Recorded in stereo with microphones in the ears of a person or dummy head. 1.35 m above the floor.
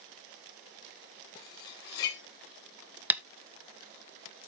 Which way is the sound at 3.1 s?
10° right (ahead or behind).